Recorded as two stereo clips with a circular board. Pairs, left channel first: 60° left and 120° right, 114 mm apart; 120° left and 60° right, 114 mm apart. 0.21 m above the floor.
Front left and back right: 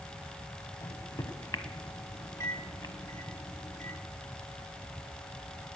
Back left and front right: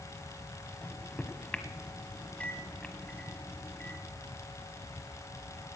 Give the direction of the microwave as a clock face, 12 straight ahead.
10 o'clock.